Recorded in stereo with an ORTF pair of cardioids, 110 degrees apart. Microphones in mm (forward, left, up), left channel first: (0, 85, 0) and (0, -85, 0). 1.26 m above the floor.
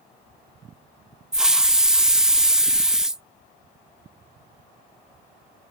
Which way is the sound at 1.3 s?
5° right.